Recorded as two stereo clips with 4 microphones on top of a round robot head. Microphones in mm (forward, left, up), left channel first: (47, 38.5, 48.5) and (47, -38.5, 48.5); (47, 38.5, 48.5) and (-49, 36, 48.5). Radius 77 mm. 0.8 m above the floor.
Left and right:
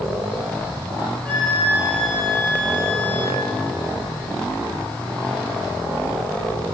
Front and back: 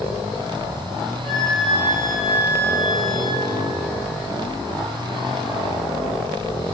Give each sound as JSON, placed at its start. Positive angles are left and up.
{"t": 1.2, "sound": "a flute", "azimuth_deg": -85, "distance_m": 5.5}